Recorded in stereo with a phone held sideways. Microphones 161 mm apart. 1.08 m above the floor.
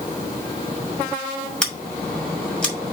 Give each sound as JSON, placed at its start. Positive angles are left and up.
{"t": 1.6, "sound": "scissors", "side_deg": 5, "distance_m": 2.0}